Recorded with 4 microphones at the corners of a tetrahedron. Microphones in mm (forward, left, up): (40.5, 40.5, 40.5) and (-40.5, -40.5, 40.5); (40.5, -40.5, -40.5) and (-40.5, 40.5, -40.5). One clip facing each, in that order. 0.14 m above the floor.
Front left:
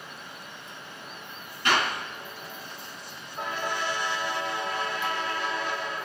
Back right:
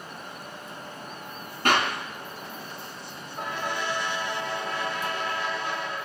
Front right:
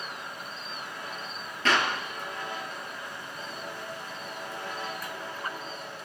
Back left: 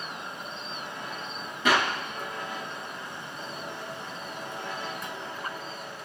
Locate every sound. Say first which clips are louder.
1.6 s a clap: back right 2 dB, back left 2 dB; 150° right, 1.9 m